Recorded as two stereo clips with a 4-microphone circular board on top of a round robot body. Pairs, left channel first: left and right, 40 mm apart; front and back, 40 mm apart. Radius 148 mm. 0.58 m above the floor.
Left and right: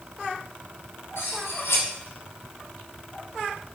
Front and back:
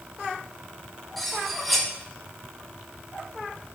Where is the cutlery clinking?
85° left, 1.4 m.